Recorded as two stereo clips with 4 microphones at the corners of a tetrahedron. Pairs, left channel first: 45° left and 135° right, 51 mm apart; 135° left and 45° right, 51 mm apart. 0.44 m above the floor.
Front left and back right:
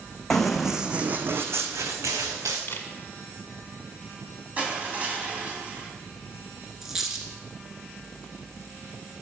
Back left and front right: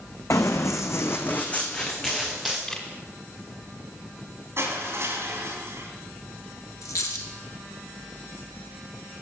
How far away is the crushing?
About 2.5 m.